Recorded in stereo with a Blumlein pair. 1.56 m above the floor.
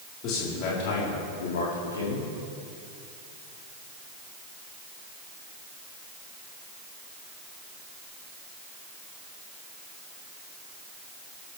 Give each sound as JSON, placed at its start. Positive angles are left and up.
{"t": 0.2, "sound": "a man speaking", "azimuth_deg": 35, "distance_m": 4.5}